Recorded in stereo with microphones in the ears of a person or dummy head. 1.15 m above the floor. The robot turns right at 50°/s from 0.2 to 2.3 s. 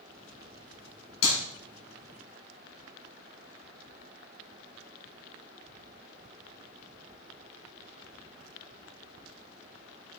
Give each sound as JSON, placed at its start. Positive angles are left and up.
{"t": 1.2, "sound": "a clap", "side_deg": 75, "distance_m": 3.5}